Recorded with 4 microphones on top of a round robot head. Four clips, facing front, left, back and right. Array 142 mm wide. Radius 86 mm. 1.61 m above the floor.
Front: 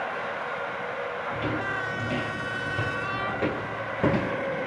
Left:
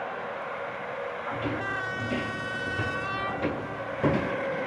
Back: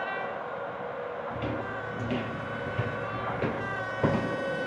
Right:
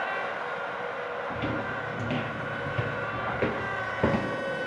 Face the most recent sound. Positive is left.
turn(degrees=-60)